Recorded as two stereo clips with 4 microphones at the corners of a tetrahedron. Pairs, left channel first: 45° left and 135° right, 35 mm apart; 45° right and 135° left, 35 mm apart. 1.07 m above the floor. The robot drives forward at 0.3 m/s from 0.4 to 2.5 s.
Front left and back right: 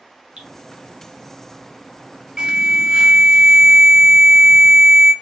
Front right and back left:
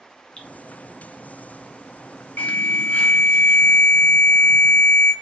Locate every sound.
0.4 s dripping: 105° right, 0.9 m; by 0.5 s 110° right, 0.9 m
2.4 s an alarm: 70° right, 0.6 m; by 5.1 s 75° right, 0.6 m